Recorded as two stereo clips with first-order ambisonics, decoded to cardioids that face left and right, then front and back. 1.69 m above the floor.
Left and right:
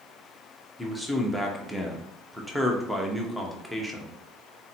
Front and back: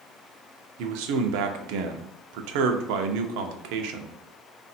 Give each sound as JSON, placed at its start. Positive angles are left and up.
{"t": 0.8, "sound": "a man speaking", "azimuth_deg": 180, "distance_m": 0.7}